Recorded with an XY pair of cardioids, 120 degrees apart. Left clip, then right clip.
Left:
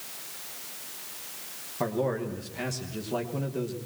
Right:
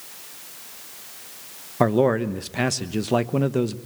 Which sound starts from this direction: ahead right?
A man speaking, at 1.8 s.